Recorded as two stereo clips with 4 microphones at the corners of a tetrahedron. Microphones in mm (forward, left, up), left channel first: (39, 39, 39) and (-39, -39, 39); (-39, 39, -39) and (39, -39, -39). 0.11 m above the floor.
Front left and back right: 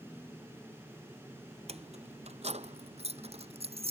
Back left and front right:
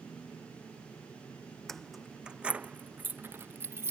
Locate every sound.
1.7 s keys jangling: 140° right; by 3.9 s 110° right